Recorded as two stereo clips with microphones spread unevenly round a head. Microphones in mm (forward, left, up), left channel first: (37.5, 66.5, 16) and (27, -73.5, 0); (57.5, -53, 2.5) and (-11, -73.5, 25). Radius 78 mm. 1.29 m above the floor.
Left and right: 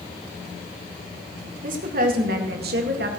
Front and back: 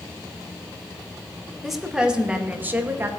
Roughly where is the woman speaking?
Right.